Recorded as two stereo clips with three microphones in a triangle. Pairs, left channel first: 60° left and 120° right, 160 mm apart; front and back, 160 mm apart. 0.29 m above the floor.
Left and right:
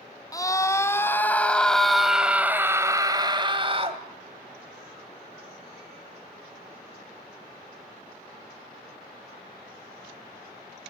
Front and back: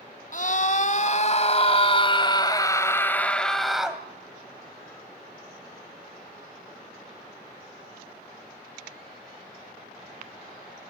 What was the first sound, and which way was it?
A scream, 5° right.